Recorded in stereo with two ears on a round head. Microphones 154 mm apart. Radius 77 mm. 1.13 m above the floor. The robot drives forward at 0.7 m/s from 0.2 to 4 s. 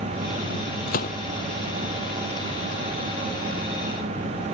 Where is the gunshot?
55° left (ahead or behind).